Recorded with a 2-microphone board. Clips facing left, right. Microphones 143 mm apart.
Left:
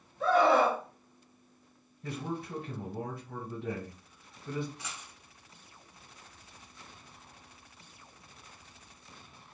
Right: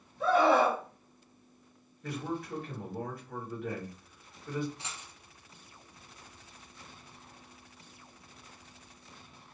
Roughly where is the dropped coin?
Right.